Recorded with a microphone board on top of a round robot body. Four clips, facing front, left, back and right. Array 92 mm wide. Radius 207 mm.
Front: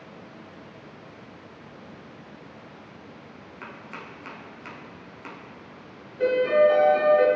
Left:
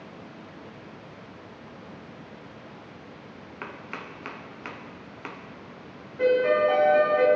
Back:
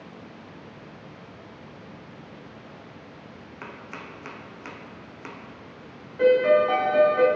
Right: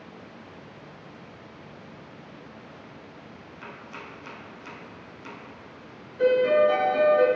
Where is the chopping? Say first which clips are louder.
Left 4 dB, back 1 dB; 105° left, 1.2 m.